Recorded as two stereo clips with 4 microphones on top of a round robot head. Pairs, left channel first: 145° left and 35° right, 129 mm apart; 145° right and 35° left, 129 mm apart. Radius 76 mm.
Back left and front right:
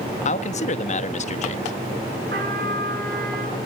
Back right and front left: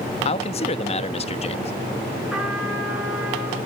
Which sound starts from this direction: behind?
A man speaking, at 0.2 s.